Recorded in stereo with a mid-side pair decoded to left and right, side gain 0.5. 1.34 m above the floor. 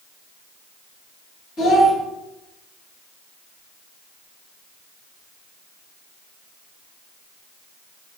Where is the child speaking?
60° left, 2.5 m.